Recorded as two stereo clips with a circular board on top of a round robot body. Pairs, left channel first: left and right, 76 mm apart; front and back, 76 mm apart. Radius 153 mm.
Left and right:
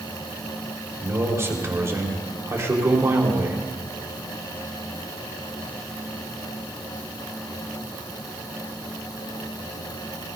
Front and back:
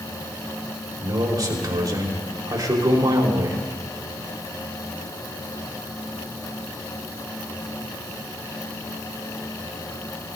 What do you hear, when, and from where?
1.0 s a man speaking: 145° right, 4.5 m